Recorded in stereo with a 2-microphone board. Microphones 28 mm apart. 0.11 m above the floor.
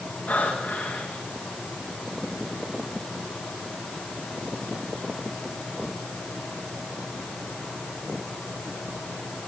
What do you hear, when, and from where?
0.3 s breathing: 80° left, 6.5 m